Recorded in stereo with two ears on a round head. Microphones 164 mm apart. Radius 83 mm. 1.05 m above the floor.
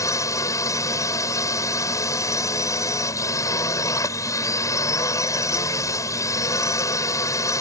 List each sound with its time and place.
0.0 s a drone: 20° left (ahead or behind)